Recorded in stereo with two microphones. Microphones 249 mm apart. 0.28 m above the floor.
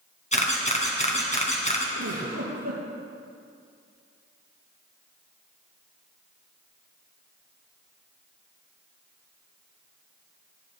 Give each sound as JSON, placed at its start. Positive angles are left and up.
{"t": 0.3, "sound": "a camera shutter", "side_deg": 25, "distance_m": 3.0}
{"t": 1.9, "sound": "a giggle", "side_deg": -80, "distance_m": 4.5}